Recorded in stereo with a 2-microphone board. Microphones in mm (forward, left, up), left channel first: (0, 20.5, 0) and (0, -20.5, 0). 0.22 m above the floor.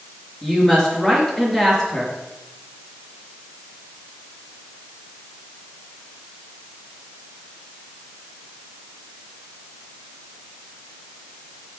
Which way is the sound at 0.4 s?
10° left (ahead or behind).